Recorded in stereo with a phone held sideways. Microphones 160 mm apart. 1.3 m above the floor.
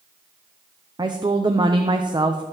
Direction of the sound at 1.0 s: 30° right (ahead or behind).